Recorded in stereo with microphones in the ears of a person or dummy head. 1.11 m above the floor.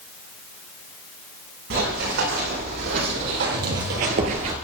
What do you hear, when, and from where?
1.7 s running footsteps: 70° right (ahead or behind), 5 m; by 4.5 s 25° right (ahead or behind), 1.2 m